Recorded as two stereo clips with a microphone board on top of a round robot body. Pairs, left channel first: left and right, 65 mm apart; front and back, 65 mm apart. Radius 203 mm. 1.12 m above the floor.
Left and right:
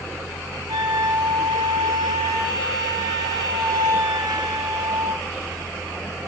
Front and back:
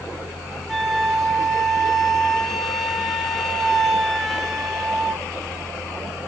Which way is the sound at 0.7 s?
90° right.